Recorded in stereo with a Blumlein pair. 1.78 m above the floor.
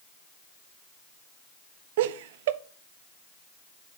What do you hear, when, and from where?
2.0 s laughter: 55° right, 0.7 m